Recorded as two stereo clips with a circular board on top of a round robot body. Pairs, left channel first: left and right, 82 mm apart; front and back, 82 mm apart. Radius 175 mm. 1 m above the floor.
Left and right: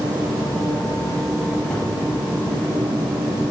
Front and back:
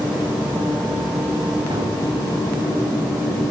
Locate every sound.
1.7 s a gunshot: 160° left, 3.5 m